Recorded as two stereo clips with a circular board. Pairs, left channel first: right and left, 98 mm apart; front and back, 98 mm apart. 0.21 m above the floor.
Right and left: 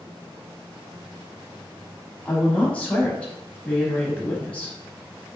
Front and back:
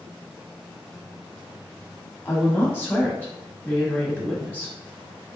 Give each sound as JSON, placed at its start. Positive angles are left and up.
{"t": 2.2, "sound": "a woman speaking", "azimuth_deg": -35, "distance_m": 1.0}